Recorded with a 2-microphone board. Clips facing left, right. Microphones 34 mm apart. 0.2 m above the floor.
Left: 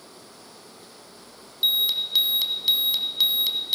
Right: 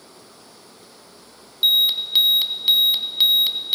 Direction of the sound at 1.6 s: 30° right (ahead or behind).